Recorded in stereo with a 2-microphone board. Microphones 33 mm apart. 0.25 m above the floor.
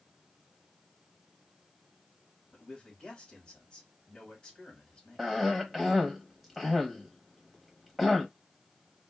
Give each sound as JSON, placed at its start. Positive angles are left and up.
{"t": 2.5, "sound": "a man speaking", "side_deg": 20, "distance_m": 1.7}
{"t": 5.2, "sound": "a cough", "side_deg": 0, "distance_m": 0.9}